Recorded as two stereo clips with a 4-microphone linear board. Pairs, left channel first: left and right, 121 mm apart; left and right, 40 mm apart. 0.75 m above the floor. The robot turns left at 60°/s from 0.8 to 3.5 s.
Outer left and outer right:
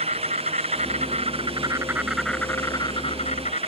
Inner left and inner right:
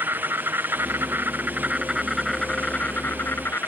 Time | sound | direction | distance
0.0 | an insect | 95° right | ?